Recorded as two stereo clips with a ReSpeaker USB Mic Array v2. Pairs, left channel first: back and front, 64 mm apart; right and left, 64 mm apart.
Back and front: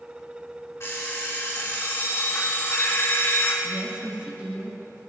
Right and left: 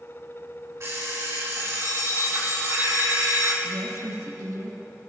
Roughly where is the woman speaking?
Left.